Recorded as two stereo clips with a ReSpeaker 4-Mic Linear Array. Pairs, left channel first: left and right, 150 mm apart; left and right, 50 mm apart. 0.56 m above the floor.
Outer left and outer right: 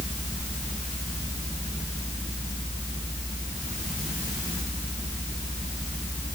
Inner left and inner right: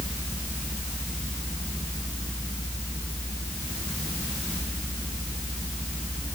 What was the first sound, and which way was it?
Only background noise.